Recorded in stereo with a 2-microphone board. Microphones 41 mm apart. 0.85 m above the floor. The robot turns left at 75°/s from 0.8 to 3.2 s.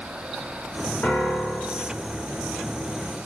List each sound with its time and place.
1.0 s a piano: 145° left, 2.5 m; by 1.9 s 75° left, 2.5 m